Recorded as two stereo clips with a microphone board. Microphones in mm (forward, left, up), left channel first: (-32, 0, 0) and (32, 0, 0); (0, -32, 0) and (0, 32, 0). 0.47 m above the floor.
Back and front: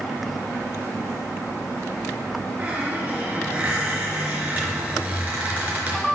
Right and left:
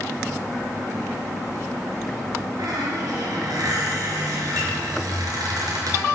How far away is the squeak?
About 4.5 m.